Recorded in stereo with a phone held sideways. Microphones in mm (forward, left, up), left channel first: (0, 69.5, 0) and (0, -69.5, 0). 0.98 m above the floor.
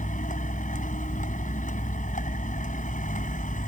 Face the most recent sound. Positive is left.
turn(degrees=65)  # may be behind; listen again after turning